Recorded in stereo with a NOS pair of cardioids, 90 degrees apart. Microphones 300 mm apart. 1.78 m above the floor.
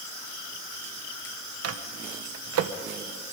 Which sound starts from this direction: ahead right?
A microwave, at 1.6 s.